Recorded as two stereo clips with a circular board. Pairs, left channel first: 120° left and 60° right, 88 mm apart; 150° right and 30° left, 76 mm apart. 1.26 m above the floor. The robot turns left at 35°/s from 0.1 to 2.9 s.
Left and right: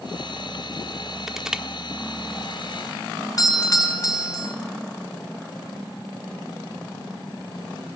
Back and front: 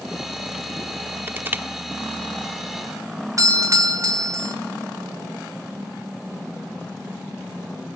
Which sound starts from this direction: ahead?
Crushing, at 1.3 s.